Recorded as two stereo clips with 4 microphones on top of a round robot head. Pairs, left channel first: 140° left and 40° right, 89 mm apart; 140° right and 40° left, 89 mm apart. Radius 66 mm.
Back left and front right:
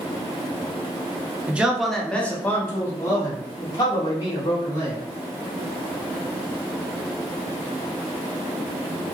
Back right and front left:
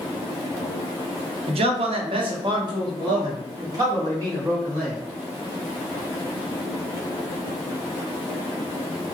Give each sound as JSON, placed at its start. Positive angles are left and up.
{"t": 1.5, "sound": "a man speaking", "azimuth_deg": 35, "distance_m": 0.7}